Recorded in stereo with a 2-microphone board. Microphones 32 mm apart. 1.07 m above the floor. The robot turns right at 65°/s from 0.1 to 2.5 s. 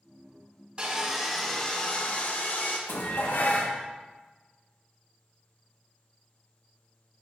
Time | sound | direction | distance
0.8 | sawing | 35° right | 1.1 m
2.9 | dishes clattering | 65° left (ahead or behind) | 1.0 m